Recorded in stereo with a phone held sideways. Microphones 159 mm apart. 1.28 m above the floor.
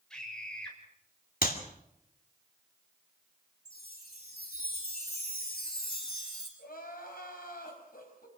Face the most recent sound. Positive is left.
turn(degrees=80)